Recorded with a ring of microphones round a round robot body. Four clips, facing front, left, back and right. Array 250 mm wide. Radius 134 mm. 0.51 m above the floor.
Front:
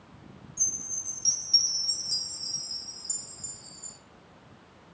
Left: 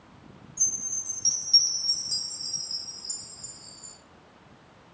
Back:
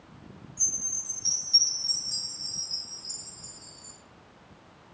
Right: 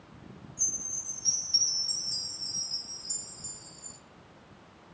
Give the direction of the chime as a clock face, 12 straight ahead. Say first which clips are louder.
Even, back 1 dB; 10 o'clock.